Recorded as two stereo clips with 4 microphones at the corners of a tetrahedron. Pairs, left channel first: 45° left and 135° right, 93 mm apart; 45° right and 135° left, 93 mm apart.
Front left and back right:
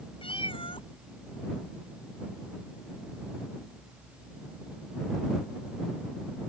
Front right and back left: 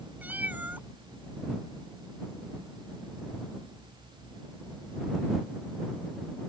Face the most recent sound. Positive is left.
turn(degrees=65)